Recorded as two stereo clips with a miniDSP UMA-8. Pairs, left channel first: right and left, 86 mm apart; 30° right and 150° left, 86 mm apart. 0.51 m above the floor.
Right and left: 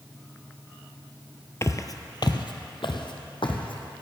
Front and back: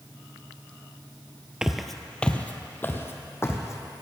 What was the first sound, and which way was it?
Footsteps, 130° right.